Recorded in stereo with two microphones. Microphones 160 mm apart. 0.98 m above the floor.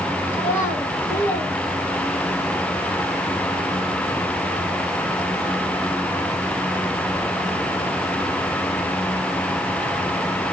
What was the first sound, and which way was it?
A child speaking, 15° left (ahead or behind).